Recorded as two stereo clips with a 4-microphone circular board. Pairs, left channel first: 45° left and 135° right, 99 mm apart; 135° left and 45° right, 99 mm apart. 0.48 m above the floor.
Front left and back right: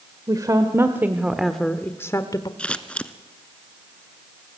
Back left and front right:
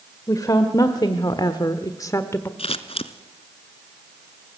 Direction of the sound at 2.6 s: 125° left.